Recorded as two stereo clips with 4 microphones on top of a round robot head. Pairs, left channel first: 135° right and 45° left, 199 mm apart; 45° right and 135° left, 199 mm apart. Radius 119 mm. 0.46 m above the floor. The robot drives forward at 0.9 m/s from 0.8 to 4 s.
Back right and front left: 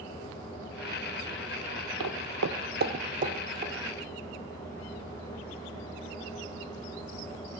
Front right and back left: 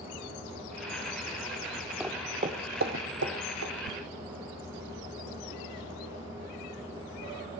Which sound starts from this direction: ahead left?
Footsteps, at 2.0 s.